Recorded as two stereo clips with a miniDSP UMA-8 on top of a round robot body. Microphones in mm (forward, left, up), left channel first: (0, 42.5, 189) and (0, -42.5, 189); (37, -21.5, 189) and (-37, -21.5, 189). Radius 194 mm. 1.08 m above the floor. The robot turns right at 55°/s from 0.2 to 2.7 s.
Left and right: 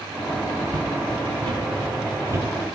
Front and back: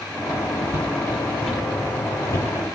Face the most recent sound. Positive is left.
turn(degrees=-20)